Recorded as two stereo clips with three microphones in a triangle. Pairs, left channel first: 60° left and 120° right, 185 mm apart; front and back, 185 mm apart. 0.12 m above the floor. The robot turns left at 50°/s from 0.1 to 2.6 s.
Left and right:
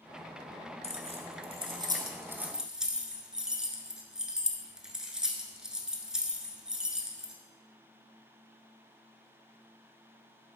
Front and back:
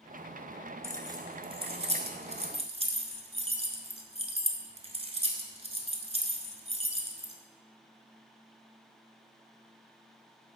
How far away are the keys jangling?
About 0.9 m.